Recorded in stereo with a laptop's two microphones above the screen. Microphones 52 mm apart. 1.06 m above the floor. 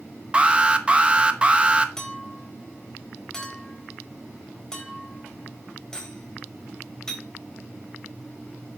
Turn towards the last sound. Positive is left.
turn(degrees=15)  # may be behind; listen again after turning